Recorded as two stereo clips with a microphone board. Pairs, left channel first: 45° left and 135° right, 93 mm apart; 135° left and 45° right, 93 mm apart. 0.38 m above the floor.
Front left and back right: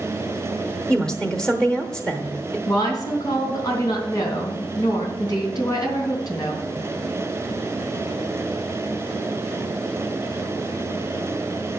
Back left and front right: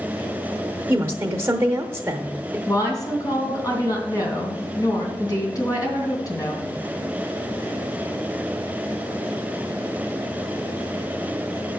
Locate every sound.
0.9 s a woman speaking: 30° right, 0.9 m
2.7 s a woman speaking: 90° left, 3 m